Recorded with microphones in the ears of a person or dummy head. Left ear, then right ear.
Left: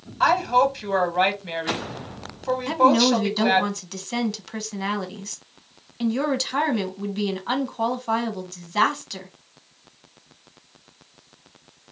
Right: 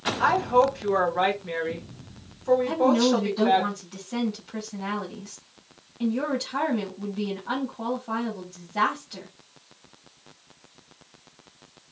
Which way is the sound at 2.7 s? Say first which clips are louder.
Left 4 dB; 60° left (ahead or behind).